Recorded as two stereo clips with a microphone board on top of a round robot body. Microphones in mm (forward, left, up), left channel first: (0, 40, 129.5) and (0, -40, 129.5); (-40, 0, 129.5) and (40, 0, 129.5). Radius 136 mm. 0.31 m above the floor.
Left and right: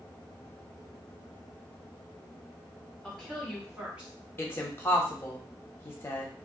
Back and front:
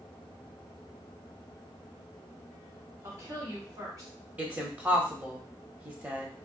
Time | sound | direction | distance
3.0 | a woman speaking | 15° left | 1.4 m
4.4 | a woman speaking | 55° left | 1.0 m